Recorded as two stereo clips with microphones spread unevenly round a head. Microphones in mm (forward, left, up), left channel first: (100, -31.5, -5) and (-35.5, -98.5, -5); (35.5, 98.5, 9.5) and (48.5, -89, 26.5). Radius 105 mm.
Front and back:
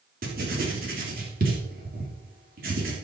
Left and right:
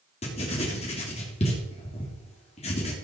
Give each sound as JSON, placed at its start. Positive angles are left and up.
{"t": 0.2, "sound": "writing", "azimuth_deg": 155, "distance_m": 3.0}